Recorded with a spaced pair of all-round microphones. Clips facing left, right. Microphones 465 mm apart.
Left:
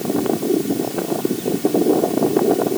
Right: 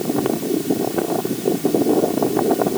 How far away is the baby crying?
I don't hear a baby crying.